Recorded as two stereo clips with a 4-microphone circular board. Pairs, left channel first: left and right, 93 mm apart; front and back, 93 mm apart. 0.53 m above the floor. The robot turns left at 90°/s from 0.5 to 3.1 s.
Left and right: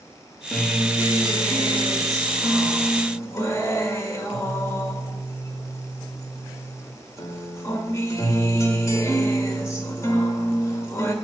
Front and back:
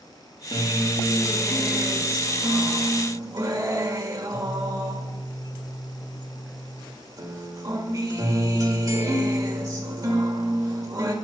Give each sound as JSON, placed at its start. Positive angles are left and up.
{"t": 0.5, "sound": "a guitar", "azimuth_deg": 15, "distance_m": 1.9}